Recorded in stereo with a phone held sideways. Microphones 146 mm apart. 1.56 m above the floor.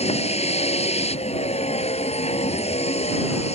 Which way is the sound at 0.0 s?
45° left (ahead or behind).